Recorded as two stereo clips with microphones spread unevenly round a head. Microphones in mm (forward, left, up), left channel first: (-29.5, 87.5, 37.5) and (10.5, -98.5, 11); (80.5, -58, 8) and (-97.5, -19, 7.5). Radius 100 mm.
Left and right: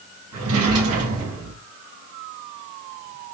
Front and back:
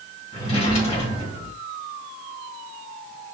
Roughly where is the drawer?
Right.